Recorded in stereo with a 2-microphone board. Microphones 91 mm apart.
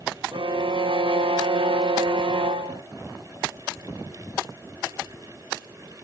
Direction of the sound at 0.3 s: 70° right (ahead or behind).